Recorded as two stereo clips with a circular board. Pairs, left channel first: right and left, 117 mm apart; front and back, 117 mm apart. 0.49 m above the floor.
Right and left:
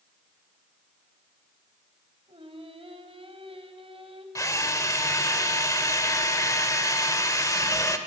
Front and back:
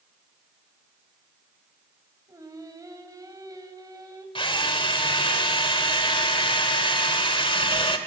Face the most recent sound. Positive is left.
turn(degrees=-30)